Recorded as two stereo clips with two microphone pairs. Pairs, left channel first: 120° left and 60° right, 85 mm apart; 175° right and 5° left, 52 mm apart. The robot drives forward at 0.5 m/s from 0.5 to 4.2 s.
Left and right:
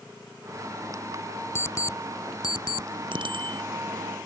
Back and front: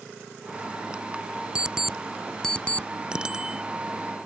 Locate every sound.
1.6 s an alarm clock: 70° left; by 2.9 s 130° left
3.1 s a bicycle bell: 65° right; by 3.6 s 70° right